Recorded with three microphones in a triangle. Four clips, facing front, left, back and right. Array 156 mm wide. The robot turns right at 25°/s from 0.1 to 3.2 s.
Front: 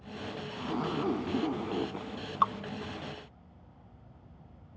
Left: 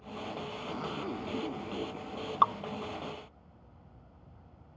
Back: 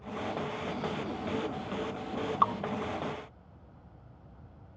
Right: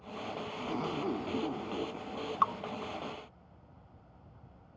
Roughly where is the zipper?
Ahead right.